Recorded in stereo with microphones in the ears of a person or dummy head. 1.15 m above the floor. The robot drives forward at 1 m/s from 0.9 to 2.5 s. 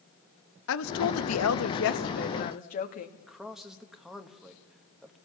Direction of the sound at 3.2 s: Centre (ahead or behind).